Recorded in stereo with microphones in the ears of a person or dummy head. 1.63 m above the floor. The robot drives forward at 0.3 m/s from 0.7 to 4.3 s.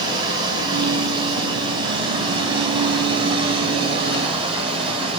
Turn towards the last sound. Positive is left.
turn(degrees=-35)  # may be behind; listen again after turning